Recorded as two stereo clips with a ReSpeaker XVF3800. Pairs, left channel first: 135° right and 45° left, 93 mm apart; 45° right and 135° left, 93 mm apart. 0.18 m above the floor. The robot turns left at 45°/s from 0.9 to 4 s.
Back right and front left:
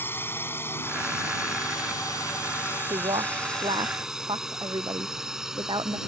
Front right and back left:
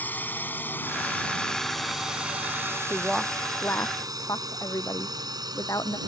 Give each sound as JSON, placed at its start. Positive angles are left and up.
{"t": 0.0, "sound": "a drone", "azimuth_deg": -95}
{"t": 2.9, "sound": "a woman speaking", "azimuth_deg": 60}